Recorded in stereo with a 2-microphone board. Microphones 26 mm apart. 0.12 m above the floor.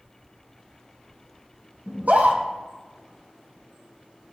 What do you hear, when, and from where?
1.9 s a scream: 75° right (ahead or behind), 4.5 m